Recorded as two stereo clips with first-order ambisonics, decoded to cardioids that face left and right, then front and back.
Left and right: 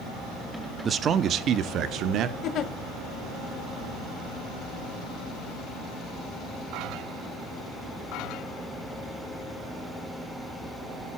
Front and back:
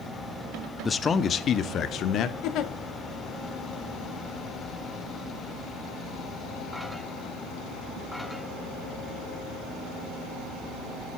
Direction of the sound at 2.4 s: 40° left.